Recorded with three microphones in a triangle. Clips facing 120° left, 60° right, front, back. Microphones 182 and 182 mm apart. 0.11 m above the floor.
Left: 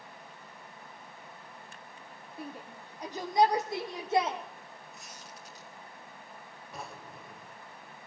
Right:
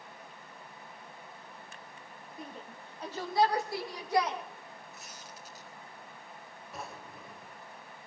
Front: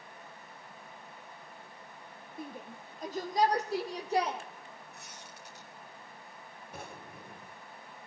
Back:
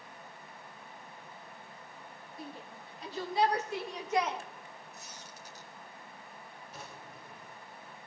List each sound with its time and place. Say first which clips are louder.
2.4 s a shout: left 3 dB, front 3 dB; 35° left, 4 m; by 4.4 s 55° left, 5 m
4.9 s a squeak: even, even; 25° left, 2.5 m
6.7 s a drawer: even, front 4 dB; 30° left, 1.8 m